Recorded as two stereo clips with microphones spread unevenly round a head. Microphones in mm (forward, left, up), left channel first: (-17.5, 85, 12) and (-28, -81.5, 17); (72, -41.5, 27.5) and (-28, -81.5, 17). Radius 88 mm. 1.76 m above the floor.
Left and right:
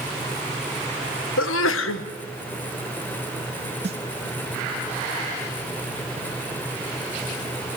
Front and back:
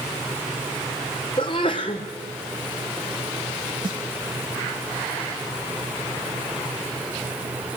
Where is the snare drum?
130° right, 1.3 m.